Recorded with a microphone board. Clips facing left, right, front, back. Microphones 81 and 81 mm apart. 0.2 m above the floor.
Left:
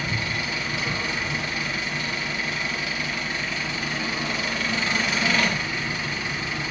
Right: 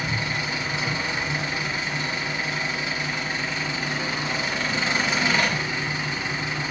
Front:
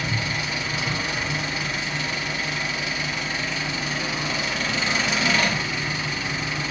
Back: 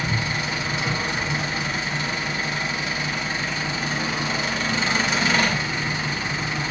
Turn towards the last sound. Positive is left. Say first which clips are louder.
# right 1 dB, back 2 dB
turn(degrees=-140)